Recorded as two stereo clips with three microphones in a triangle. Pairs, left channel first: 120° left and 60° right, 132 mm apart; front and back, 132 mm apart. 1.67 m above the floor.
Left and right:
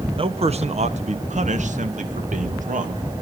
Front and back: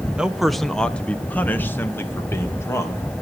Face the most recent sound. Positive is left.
turn(degrees=-70)